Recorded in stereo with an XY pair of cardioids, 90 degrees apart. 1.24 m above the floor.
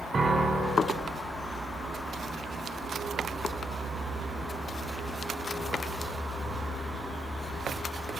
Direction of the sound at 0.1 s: 35° right.